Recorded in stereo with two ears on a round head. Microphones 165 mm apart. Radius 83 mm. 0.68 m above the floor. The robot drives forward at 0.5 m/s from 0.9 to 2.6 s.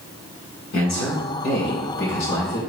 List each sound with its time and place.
0.7 s a man speaking: 70° left (ahead or behind), 2.5 m; by 2.6 s 65° left (ahead or behind), 2.5 m